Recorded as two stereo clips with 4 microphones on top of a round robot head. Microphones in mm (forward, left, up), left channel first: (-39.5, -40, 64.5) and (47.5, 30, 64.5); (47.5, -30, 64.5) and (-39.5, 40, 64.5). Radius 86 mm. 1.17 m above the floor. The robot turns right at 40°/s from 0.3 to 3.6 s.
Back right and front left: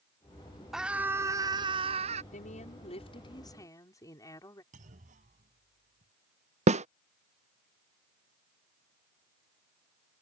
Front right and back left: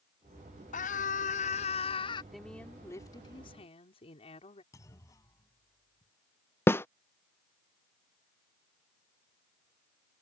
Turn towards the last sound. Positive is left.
turn(degrees=30)